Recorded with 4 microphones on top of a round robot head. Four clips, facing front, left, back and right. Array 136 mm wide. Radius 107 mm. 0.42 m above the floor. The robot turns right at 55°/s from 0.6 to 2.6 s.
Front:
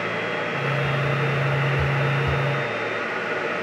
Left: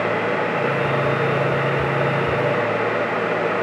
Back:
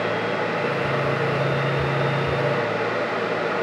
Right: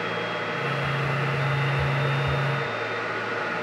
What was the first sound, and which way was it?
Only background noise.